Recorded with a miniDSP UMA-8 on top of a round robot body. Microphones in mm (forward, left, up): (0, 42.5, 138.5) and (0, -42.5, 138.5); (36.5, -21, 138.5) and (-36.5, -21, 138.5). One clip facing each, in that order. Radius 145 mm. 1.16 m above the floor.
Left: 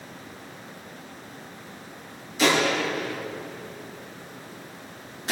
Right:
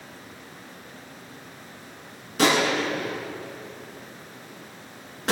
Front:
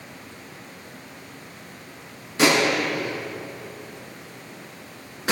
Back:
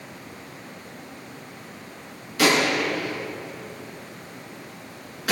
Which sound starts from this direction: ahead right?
A gunshot, at 2.4 s.